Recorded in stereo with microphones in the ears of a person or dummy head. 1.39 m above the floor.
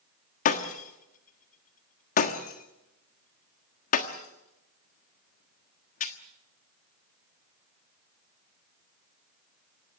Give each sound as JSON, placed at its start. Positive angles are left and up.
{"t": 0.5, "sound": "breaking glass", "side_deg": 45, "distance_m": 1.3}